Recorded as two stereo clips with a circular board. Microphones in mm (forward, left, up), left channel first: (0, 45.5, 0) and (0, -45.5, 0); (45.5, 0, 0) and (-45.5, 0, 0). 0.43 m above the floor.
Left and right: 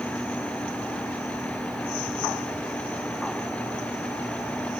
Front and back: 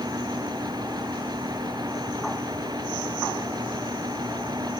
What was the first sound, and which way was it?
Only background noise.